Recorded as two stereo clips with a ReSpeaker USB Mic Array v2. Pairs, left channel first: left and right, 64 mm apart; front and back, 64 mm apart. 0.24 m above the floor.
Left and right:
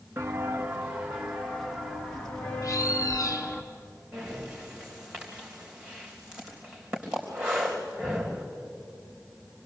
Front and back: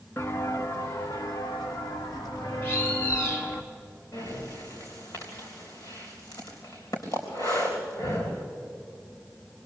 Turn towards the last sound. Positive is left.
turn(degrees=-15)